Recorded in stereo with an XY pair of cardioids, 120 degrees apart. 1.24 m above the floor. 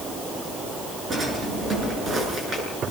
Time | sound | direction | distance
1.1 | a drawer | 35° right | 8.5 m